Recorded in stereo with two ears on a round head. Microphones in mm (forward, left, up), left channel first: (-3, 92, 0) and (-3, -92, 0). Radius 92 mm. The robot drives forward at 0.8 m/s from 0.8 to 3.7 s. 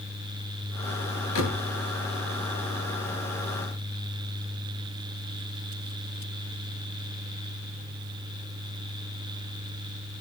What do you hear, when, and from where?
1.4 s a door slam: 75° left (ahead or behind), 5.5 m